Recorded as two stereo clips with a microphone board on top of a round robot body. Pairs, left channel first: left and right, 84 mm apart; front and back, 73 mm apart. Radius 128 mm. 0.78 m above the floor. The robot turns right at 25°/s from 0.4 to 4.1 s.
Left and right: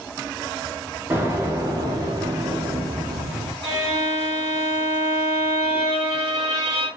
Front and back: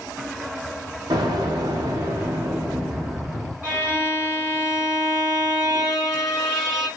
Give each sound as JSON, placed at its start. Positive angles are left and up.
{"t": 1.1, "sound": "an explosion", "azimuth_deg": -155, "distance_m": 0.6}
{"t": 3.6, "sound": "a violin", "azimuth_deg": -115, "distance_m": 1.3}